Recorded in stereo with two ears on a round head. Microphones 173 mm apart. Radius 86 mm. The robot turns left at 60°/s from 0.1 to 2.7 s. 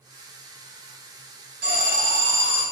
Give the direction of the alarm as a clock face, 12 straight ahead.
2 o'clock.